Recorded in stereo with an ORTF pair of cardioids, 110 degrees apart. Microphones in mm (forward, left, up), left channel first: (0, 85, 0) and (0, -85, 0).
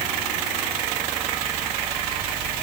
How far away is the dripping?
No dripping in this recording.